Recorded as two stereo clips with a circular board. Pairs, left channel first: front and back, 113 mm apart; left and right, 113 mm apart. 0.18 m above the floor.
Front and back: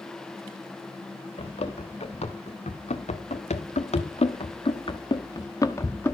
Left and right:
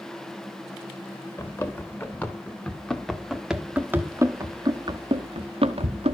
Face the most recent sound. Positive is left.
turn(degrees=-70)